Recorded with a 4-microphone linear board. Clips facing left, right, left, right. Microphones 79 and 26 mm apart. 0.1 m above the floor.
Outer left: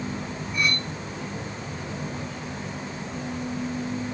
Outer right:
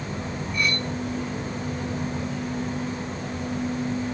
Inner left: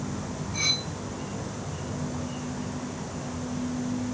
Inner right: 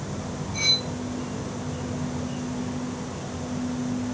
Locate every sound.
0.5 s cutlery clinking: 5° left (ahead or behind), 4 m